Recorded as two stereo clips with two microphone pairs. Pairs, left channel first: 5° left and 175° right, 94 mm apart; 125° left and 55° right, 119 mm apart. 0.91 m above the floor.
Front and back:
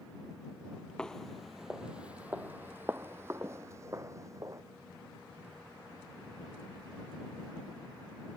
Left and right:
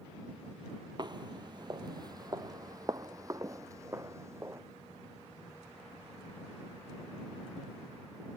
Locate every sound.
1.0 s footsteps: 70° right; by 4.6 s 120° right